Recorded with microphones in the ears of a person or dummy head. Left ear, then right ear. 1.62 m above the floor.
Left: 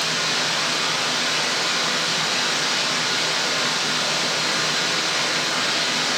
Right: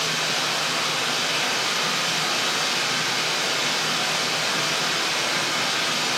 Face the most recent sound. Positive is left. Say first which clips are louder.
# left 2 dB
turn(degrees=-5)  # may be behind; listen again after turning